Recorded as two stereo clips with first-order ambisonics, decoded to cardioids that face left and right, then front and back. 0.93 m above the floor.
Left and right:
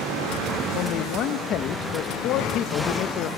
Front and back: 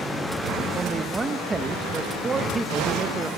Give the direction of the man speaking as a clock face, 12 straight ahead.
8 o'clock.